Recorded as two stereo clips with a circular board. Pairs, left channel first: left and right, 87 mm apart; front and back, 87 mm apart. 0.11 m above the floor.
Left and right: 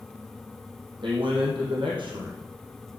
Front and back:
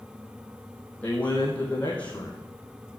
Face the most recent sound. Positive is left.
turn(degrees=-75)